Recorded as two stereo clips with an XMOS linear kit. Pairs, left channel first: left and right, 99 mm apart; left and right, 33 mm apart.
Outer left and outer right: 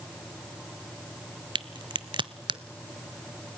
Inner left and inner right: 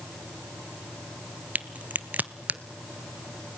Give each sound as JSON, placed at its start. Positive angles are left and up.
{"t": 1.6, "sound": "a crack", "side_deg": -55, "distance_m": 0.7}